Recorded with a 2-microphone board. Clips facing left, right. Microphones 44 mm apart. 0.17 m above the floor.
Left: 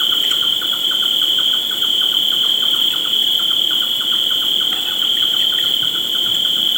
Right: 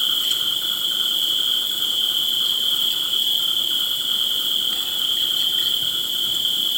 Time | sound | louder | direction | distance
0.0 | an insect | left 5 dB | 40° left (ahead or behind) | 1.4 m